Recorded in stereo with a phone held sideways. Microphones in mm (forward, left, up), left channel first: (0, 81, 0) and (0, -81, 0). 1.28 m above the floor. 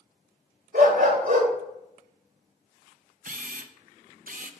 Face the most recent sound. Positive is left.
turn(degrees=-55)  # may be behind; listen again after turning